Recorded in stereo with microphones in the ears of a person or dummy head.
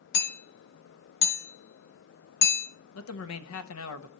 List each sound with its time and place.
0.1 s hammering: 65° left (ahead or behind), 2.5 m
3.0 s a man speaking: 80° left, 1.2 m